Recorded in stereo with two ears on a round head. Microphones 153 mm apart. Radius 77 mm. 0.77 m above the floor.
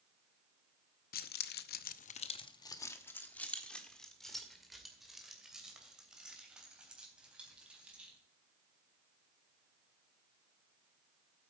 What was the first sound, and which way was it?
Keys jangling, 50° left (ahead or behind).